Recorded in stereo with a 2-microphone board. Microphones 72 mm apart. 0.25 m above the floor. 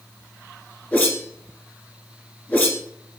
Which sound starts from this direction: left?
A whoosh, at 0.9 s.